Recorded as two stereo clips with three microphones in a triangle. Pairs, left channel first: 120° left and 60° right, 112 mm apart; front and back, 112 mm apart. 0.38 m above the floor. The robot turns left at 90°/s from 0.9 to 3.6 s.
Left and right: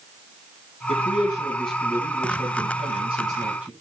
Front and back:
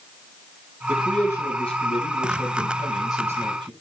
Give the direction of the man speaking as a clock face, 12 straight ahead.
8 o'clock.